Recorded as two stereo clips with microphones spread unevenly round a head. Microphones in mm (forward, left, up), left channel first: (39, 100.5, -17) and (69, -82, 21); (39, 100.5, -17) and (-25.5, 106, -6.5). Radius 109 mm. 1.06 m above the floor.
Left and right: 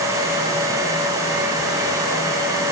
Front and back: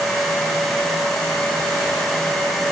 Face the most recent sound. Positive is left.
No sound to turn to.